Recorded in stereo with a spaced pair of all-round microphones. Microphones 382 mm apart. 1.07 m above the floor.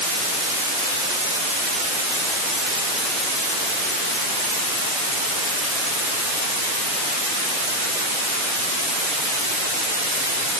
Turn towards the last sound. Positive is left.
No sound to turn to.